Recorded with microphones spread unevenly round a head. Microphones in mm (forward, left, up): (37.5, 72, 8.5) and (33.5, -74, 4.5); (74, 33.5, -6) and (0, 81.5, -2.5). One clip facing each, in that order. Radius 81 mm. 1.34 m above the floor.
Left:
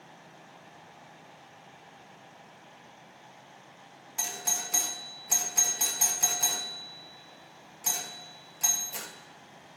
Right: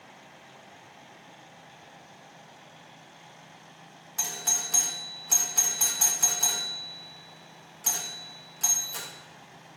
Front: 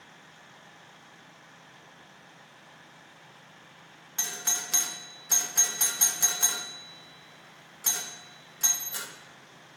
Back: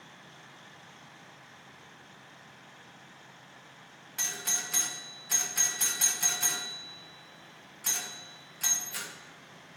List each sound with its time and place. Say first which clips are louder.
4.2 s a doorbell: even, front 1 dB; 15° left, 1.3 m